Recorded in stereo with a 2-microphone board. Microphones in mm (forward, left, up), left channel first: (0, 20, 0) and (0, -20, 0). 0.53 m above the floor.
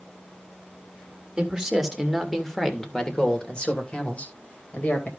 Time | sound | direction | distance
1.4 | a man speaking | 20° right (ahead or behind) | 1.9 m